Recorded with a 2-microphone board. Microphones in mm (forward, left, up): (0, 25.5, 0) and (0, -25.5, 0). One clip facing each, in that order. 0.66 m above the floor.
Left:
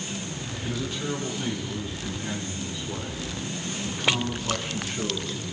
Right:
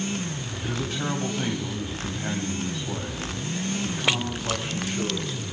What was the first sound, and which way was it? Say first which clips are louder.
A man speaking: right 2 dB; 80° right.